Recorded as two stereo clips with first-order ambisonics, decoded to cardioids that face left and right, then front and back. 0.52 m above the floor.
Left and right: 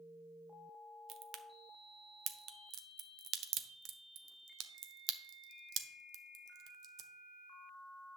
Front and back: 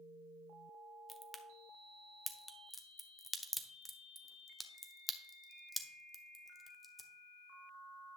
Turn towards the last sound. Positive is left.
turn(degrees=-80)